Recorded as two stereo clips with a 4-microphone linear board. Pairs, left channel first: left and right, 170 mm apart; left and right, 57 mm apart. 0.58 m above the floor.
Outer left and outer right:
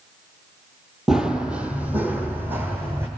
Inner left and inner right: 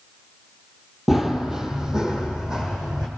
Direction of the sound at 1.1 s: 5° right (ahead or behind).